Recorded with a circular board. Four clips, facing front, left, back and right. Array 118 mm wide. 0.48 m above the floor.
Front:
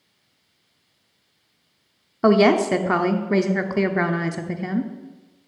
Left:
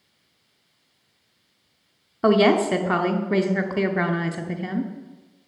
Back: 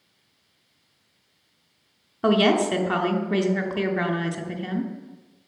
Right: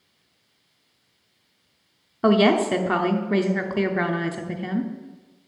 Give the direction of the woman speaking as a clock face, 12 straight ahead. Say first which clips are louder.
Left 1 dB, front 4 dB; 12 o'clock.